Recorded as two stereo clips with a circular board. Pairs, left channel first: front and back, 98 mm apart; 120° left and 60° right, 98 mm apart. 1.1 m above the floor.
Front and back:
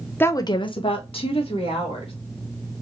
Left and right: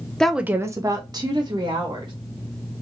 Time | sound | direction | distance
0.2 | a woman speaking | 45° left | 0.5 m